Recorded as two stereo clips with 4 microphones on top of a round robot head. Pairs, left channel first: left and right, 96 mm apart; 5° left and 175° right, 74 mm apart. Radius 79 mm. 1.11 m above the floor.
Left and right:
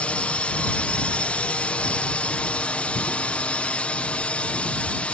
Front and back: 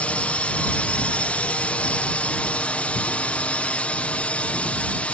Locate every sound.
0.0 s a drone: 40° left